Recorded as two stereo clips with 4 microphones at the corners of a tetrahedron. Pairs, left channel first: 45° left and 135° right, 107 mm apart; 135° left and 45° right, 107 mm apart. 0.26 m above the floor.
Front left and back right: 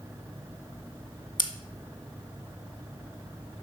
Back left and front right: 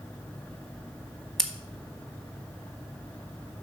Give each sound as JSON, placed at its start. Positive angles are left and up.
{"t": 1.4, "sound": "scissors", "azimuth_deg": 55, "distance_m": 0.9}